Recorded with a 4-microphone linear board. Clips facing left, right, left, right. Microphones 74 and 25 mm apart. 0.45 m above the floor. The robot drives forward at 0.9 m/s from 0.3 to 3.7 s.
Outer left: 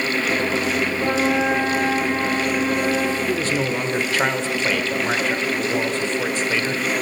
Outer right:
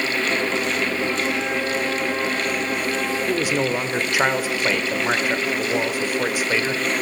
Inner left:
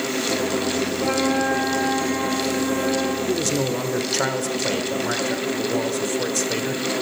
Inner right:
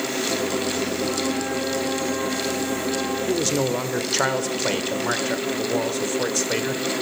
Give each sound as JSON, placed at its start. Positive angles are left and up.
{"t": 1.0, "sound": "a flute", "side_deg": 60, "distance_m": 1.6}
{"t": 3.3, "sound": "a man speaking", "side_deg": -15, "distance_m": 0.9}